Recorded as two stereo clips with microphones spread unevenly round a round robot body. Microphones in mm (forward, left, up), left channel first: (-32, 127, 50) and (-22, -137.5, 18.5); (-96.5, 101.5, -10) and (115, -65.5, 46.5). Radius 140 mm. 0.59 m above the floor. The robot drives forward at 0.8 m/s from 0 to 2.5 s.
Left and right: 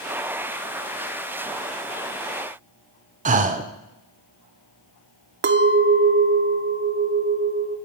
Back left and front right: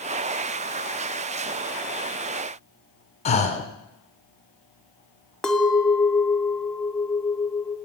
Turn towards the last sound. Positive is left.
turn(degrees=-135)